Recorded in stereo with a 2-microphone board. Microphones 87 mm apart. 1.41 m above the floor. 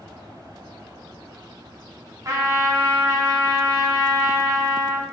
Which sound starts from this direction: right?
A trumpet, at 2.2 s.